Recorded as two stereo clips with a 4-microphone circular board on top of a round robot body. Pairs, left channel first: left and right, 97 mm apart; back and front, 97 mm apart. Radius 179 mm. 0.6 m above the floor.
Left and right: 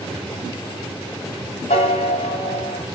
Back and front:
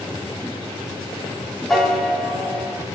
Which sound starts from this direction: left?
A piano, at 1.7 s.